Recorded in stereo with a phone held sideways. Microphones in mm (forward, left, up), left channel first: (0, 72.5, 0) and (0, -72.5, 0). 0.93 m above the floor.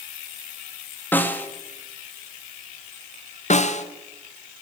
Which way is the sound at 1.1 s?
15° left (ahead or behind).